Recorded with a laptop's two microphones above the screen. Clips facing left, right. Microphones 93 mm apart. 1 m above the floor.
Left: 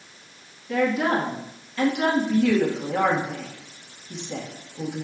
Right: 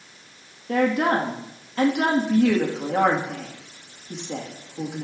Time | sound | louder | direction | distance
0.7 | a woman speaking | right 2 dB | 50° right (ahead or behind) | 1.4 m